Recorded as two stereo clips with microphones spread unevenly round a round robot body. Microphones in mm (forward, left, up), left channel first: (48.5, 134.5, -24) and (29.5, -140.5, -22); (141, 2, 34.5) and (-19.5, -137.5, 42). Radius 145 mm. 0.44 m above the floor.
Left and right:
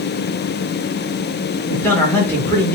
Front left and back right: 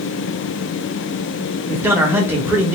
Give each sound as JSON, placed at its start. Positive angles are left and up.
{"t": 1.7, "sound": "a man speaking", "azimuth_deg": 155, "distance_m": 0.9}